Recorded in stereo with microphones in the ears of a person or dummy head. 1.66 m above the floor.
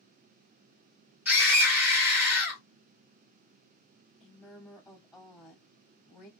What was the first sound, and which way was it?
A scream, 10° right (ahead or behind).